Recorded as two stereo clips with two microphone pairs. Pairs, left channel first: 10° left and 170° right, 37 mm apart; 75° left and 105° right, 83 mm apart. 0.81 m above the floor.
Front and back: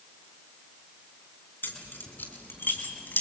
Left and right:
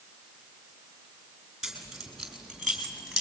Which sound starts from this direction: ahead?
Keys jangling, at 1.6 s.